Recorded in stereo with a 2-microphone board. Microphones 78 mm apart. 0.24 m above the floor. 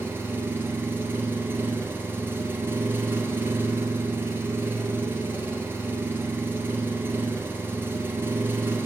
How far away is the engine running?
About 1.5 m.